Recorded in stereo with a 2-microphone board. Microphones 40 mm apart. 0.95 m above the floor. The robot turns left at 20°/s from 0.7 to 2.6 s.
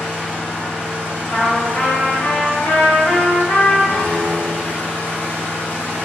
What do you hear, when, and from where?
0.0 s an engine running: 160° left, 1.5 m; by 6.0 s 120° left, 1.5 m
1.3 s a trumpet: 50° left (ahead or behind), 0.9 m; by 3.8 s 70° left (ahead or behind), 0.9 m
3.9 s a piano: 50° left (ahead or behind), 0.8 m